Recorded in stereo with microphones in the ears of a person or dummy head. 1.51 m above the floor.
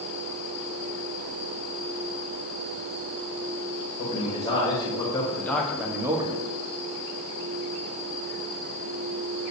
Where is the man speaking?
35° left (ahead or behind), 1.9 m; by 6.5 s 30° right (ahead or behind), 0.8 m.